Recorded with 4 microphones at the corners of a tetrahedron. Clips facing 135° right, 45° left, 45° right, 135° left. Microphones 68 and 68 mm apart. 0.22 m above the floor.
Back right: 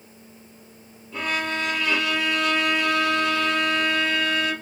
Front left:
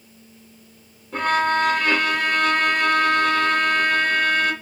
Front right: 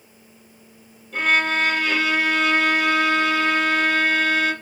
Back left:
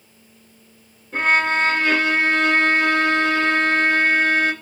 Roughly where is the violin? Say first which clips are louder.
Front left 7 dB, back left 2 dB; left.